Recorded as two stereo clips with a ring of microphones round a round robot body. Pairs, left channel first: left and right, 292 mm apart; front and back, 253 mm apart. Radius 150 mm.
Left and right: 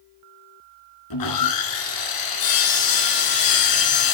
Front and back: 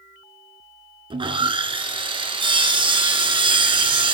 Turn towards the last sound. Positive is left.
turn(degrees=110)